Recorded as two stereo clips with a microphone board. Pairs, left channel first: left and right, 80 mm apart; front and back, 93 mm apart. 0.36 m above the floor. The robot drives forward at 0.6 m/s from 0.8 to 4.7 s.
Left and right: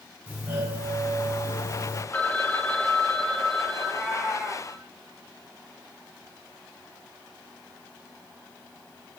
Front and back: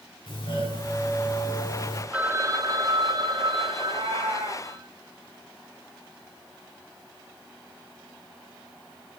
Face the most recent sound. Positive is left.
turn(degrees=175)